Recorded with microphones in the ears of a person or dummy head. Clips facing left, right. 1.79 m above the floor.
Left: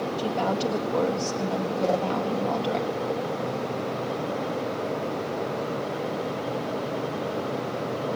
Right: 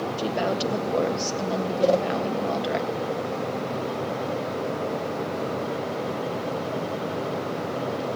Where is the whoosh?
45° right (ahead or behind), 1.8 m.